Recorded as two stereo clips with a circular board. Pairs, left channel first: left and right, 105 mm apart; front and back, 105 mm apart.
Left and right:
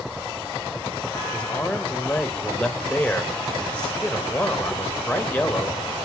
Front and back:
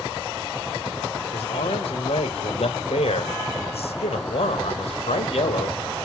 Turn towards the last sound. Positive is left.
turn(degrees=10)